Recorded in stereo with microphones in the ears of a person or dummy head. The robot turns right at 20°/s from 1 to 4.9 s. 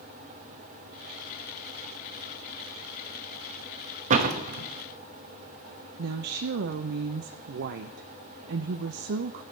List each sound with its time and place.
4.1 s a door slam: 45° right (ahead or behind), 0.9 m; by 4.7 s 55° right (ahead or behind), 0.9 m
6.0 s a woman speaking: 60° right (ahead or behind), 0.5 m